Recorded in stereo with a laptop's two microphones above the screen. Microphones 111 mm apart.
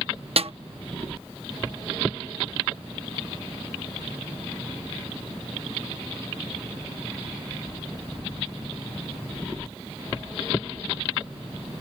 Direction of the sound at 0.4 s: 65° right (ahead or behind).